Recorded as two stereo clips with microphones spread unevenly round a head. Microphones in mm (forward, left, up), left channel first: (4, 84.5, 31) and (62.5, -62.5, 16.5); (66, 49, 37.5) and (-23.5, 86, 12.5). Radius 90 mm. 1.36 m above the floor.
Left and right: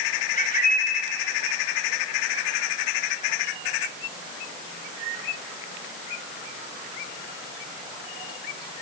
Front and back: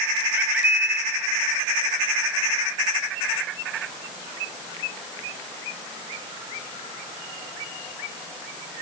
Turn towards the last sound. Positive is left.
turn(degrees=80)